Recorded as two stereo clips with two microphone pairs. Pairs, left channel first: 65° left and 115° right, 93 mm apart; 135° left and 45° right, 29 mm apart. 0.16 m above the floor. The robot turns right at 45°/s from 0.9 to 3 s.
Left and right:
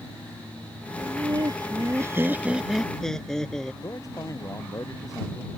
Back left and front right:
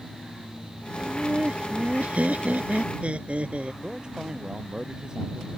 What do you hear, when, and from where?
1.0 s laughter: 110° right; by 3.7 s 20° right
3.8 s a man speaking: 15° left